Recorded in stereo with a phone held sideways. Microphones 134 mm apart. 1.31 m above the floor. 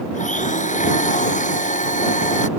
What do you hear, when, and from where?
0.1 s a blender: 75° left (ahead or behind)